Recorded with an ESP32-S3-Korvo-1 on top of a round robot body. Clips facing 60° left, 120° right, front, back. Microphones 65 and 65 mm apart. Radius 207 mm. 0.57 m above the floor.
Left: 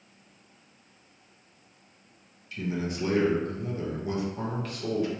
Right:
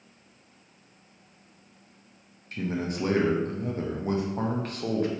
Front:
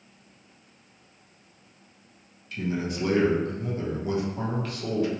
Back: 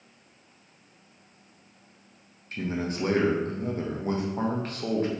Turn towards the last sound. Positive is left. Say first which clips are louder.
# right 1 dB, front 1 dB
turn(degrees=-145)